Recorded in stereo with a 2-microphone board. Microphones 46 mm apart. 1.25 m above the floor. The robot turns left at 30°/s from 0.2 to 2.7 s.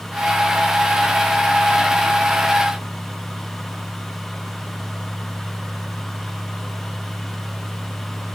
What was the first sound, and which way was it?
Only background noise.